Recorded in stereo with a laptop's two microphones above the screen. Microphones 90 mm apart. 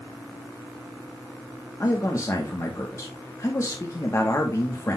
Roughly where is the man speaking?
Left.